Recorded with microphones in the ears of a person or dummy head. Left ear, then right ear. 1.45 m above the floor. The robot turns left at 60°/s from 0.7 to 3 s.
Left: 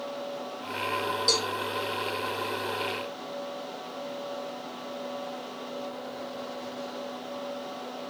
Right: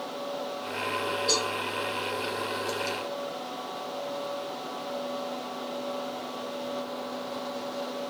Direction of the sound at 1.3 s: 45° left (ahead or behind).